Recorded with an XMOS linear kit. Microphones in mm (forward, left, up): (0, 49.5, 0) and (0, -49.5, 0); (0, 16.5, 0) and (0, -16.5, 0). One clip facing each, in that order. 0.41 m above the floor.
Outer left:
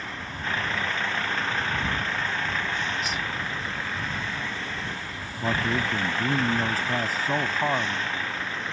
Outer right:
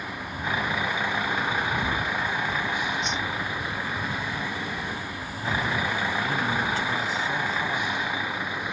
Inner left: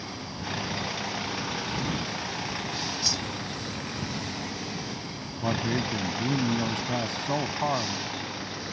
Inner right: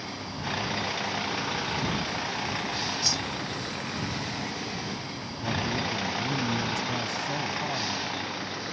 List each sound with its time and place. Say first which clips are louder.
0.0 s a vehicle: outer right 2 dB, inner right 1 dB; 10° right (ahead or behind)
3.0 s a whoosh: outer right 2 dB, inner right 1 dB; centre (ahead or behind)
5.4 s a man speaking: outer left 1 dB, inner left 1 dB; 40° left (ahead or behind)